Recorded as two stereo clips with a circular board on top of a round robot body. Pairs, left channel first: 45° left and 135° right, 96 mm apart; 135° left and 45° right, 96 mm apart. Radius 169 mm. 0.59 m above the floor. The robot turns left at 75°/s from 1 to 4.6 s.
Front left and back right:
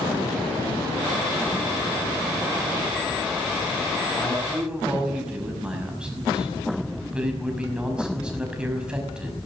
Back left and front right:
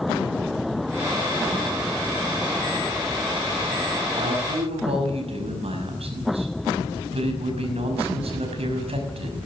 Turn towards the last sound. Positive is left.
turn(degrees=-55)